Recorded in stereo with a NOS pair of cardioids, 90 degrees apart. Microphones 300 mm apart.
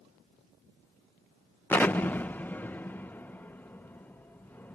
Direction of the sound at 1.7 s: 5° left.